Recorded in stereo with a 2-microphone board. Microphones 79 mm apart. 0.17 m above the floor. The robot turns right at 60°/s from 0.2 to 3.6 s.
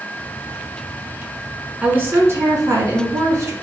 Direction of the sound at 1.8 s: 155° right.